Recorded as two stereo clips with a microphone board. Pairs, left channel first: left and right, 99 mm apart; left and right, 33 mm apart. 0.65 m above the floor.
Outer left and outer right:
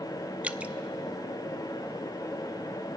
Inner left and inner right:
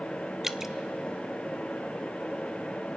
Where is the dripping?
15° right (ahead or behind), 0.6 m.